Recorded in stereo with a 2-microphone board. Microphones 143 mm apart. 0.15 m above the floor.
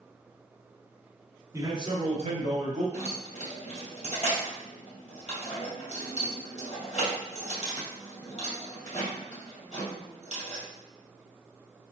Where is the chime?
I don't hear a chime.